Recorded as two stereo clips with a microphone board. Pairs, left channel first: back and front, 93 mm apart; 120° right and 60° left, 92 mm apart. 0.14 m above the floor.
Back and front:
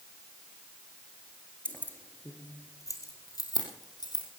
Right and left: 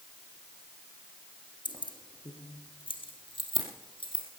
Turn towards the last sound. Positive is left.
turn(degrees=-140)